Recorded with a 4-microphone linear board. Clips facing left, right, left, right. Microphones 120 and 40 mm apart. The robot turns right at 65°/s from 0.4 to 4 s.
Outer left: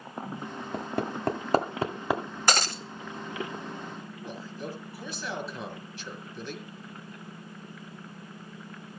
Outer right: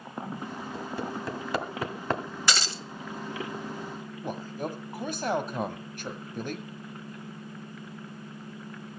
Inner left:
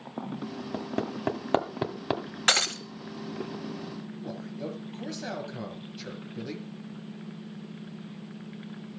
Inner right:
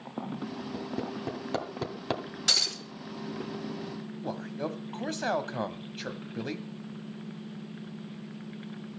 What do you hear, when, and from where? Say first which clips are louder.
0.7 s hammering: outer left 4 dB, inner left 4 dB; 55° left (ahead or behind), 1.8 m; by 2.2 s 5° left (ahead or behind), 1.8 m
2.5 s breaking glass: outer left 4 dB, inner left 5 dB; 45° left (ahead or behind), 0.8 m; by 2.8 s 50° left (ahead or behind), 0.8 m
4.2 s a man speaking: outer right 5 dB, inner right 3 dB; 55° right (ahead or behind), 2 m